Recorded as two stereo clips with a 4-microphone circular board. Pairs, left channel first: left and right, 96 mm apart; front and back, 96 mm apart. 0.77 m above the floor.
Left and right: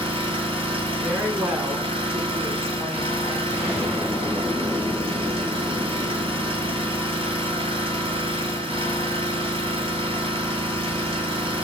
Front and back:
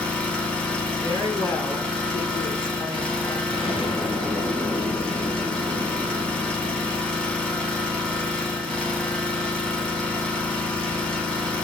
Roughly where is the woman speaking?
Ahead right.